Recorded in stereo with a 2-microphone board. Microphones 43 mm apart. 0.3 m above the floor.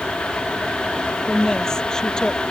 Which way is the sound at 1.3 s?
10° left (ahead or behind).